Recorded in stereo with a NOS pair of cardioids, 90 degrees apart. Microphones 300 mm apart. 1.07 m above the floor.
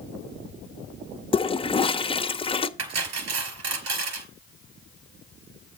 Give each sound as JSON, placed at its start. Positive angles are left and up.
{"t": 1.3, "sound": "a toilet flushing", "azimuth_deg": 20, "distance_m": 0.8}
{"t": 2.8, "sound": "cutlery clinking", "azimuth_deg": -55, "distance_m": 3.0}